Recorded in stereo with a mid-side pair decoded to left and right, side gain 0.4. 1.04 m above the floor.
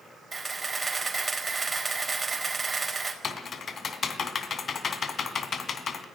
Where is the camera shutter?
25° right, 4.5 m.